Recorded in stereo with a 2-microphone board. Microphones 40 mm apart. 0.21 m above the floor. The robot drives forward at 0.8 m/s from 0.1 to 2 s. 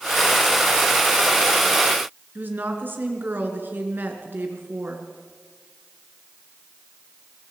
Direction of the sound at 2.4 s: 55° right (ahead or behind).